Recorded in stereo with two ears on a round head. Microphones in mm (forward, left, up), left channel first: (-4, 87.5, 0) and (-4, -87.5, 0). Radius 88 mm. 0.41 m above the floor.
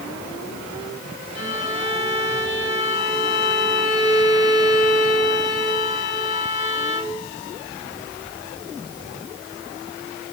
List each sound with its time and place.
1.4 s a violin: 60° left (ahead or behind), 3.5 m